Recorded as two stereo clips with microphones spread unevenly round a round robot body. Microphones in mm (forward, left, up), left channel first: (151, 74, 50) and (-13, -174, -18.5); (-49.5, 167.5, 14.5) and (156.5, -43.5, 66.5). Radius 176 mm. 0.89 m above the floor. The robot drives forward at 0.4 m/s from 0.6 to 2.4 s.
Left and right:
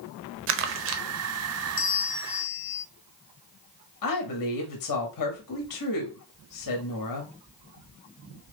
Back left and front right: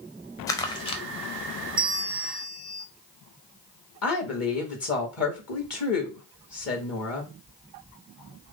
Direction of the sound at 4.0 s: 100° left.